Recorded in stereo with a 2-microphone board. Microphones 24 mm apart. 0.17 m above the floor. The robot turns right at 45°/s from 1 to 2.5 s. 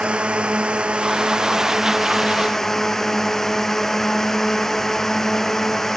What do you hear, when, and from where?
0.0 s a drone: 50° right; by 6.0 s 20° left